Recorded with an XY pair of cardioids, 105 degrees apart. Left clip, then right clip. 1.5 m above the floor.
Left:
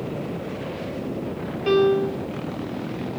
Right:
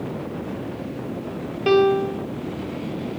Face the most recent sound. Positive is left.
turn(degrees=-40)